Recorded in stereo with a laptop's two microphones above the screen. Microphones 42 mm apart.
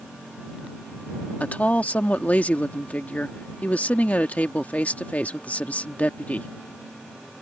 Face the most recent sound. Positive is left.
turn(degrees=35)  # may be behind; listen again after turning